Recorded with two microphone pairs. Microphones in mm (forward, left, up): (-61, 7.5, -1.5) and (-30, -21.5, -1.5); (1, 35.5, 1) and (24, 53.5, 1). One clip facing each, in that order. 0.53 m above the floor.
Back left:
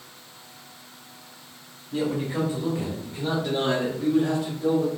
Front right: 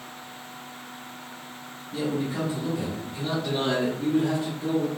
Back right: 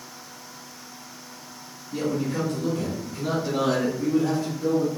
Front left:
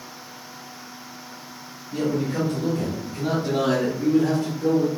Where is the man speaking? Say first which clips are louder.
Back left 2 dB, front left 2 dB; 110° left, 1.5 m; by 4.9 s 25° left, 2 m.